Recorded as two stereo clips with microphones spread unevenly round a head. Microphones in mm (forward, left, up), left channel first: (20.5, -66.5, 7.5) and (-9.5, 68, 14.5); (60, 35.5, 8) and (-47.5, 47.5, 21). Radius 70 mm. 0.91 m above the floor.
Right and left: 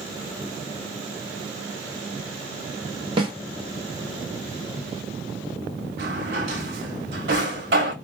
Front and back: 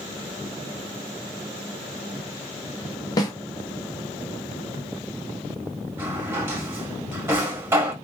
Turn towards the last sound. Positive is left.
turn(degrees=110)